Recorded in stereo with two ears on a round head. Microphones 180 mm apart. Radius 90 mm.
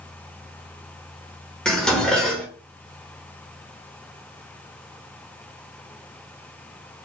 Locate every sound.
1.6 s dishes clattering: 5° left (ahead or behind), 1.4 m